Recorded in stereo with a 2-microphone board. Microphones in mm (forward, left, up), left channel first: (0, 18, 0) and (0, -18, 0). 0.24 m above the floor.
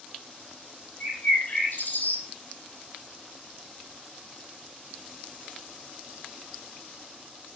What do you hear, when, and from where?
1.0 s a bird: 60° left (ahead or behind), 2.5 m